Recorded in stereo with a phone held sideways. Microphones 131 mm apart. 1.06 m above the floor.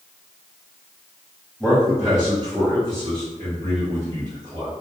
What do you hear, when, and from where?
1.6 s a man speaking: centre (ahead or behind), 0.9 m; by 4.7 s 75° right (ahead or behind), 1.5 m